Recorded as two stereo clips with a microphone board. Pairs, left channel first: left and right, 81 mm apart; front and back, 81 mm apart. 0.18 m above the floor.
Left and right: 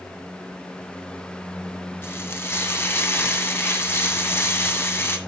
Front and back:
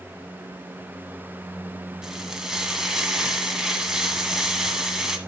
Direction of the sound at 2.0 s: 105° left.